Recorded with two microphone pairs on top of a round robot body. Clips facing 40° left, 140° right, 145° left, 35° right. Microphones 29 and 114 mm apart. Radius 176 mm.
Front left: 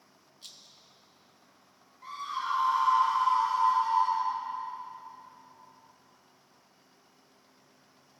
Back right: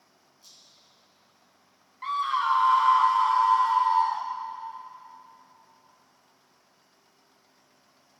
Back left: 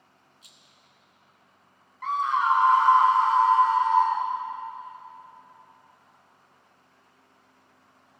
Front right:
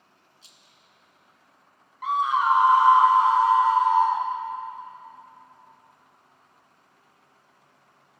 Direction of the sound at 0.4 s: 20° left.